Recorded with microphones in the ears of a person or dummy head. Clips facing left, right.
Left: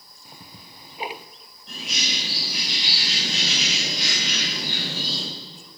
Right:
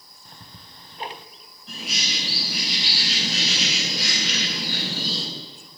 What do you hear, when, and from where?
0.2 s ticking: 10° left (ahead or behind), 0.6 m
1.7 s a bird: 5° right (ahead or behind), 8 m